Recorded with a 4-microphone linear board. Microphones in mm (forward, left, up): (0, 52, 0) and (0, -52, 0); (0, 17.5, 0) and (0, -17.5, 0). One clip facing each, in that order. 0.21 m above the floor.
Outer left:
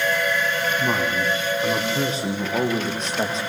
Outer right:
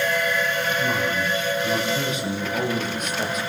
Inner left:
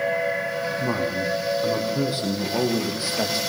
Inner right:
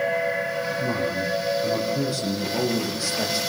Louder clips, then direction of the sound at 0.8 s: Outer left 1 dB, inner left 1 dB; 35° left (ahead or behind).